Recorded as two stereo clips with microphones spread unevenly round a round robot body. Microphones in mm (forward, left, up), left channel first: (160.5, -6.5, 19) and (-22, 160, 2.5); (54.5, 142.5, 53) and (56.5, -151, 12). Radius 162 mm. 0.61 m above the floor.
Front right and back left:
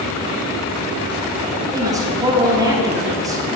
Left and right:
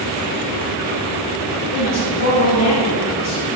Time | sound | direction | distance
1.7 | a woman speaking | 70° left | 1.1 m